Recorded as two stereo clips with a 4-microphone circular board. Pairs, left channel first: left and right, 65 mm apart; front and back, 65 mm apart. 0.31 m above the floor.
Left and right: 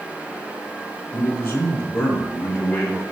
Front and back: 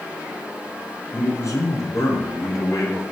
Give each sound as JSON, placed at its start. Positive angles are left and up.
{"t": 1.1, "sound": "a man speaking", "azimuth_deg": 35, "distance_m": 4.0}